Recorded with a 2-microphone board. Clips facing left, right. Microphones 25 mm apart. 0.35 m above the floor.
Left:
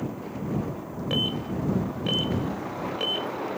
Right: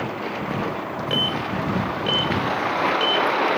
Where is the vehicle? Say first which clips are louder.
Right 6 dB; 75° right (ahead or behind).